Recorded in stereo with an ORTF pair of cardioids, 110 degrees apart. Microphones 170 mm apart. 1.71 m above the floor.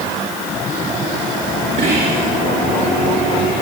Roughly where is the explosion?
No explosion in this recording.